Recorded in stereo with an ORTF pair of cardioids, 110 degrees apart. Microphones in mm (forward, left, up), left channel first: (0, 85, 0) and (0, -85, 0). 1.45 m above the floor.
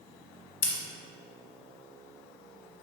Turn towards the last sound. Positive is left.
turn(degrees=55)